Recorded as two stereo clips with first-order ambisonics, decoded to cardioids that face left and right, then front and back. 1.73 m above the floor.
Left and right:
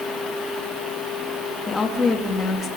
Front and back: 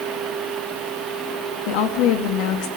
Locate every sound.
1.7 s a woman speaking: 15° left, 2.5 m